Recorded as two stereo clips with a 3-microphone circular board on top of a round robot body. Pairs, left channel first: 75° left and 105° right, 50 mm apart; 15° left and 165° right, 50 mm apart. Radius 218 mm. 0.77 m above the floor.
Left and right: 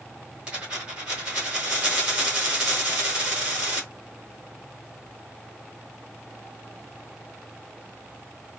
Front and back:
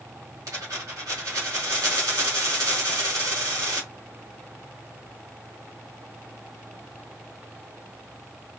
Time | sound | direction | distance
0.5 | a dropped coin | 175° right | 1.7 m